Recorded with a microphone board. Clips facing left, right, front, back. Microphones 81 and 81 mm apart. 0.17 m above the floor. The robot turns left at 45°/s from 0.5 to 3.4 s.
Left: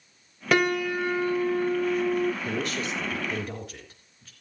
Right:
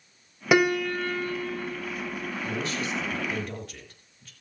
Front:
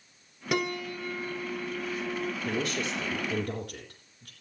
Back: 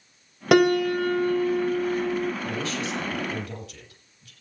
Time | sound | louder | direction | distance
0.5 | a piano | right 1 dB, back 13 dB | 170° right | 0.7 m
2.4 | a woman speaking | left 1 dB, back 1 dB | 50° left | 4 m